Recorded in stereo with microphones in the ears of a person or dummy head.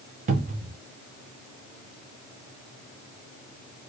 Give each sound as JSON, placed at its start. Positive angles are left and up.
{"t": 0.3, "sound": "a cupboard door", "side_deg": -40, "distance_m": 0.6}